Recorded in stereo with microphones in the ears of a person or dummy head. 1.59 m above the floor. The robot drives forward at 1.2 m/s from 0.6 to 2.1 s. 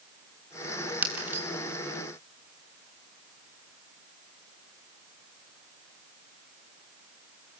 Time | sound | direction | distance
1.0 | breaking glass | 10° right (ahead or behind) | 6.5 m